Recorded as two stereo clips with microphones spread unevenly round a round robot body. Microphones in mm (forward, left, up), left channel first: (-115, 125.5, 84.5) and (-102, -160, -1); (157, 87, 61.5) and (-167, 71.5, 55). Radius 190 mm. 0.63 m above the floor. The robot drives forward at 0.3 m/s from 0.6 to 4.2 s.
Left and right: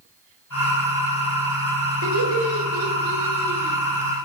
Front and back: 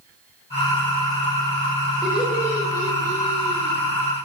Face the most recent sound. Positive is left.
turn(degrees=-110)